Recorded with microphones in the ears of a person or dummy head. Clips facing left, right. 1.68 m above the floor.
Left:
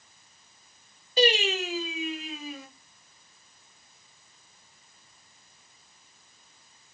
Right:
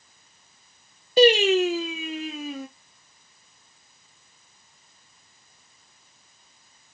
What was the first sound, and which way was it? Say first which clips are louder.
Singing: right 8 dB; 55° right (ahead or behind).